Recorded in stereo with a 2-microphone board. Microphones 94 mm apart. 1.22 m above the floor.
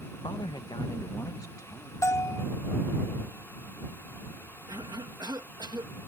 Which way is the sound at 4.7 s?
50° right (ahead or behind).